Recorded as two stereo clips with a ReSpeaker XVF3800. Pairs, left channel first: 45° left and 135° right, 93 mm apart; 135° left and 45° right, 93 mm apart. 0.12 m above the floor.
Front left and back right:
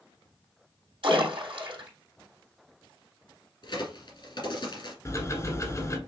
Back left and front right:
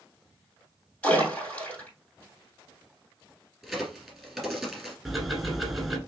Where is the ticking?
40° left, 1.3 m.